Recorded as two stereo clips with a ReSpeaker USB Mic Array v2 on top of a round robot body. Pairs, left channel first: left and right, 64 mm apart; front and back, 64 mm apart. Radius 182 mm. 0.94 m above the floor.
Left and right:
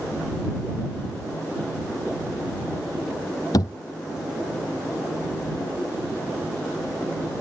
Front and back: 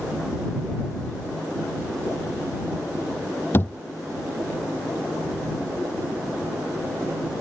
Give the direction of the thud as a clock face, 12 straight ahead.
10 o'clock.